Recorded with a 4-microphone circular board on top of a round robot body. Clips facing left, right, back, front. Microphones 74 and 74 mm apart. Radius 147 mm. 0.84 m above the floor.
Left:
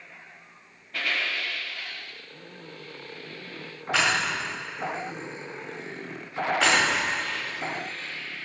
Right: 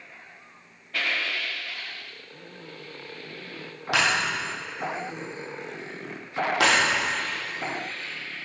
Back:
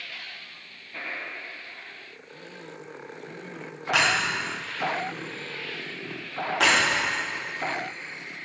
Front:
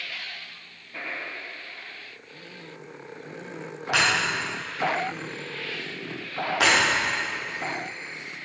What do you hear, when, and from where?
3.9 s breaking glass: 85° right, 2 m